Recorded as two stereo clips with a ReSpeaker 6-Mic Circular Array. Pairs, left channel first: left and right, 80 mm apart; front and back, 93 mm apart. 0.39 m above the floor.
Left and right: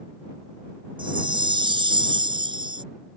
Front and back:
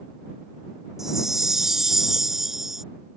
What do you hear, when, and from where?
1.0 s a chime: 95° right